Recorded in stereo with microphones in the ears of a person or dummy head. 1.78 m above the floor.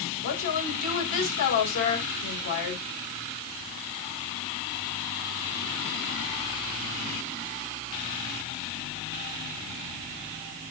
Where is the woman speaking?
60° left (ahead or behind), 4.5 m.